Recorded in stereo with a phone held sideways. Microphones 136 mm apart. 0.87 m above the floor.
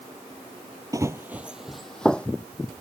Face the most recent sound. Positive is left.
turn(degrees=10)  # may be behind; listen again after turning